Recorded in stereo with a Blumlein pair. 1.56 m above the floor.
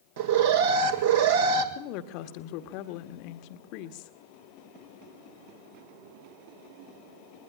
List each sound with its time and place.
0.2 s an alarm: 55° right, 1.7 m
1.8 s a woman speaking: 45° left, 1.1 m